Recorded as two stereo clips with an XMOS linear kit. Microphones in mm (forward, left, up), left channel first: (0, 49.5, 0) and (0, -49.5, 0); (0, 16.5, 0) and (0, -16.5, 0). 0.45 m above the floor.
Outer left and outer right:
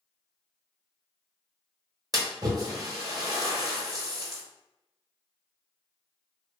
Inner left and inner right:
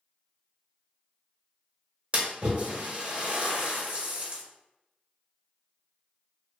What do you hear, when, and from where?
2.1 s a splash: 40° right (ahead or behind), 0.8 m